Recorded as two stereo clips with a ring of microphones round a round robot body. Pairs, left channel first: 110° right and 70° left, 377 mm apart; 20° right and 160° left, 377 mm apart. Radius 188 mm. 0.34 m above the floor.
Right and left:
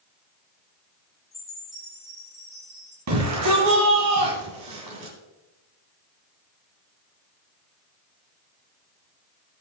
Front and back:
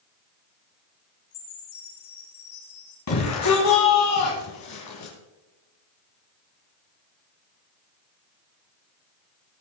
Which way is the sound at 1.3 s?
25° right.